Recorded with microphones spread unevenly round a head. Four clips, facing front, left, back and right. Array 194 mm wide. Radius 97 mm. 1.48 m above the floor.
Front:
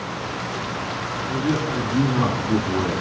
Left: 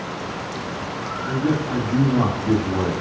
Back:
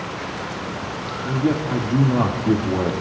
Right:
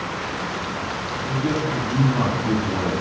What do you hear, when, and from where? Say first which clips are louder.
1.3 s a man speaking: left 2 dB, back 3 dB; 165° left, 2.5 m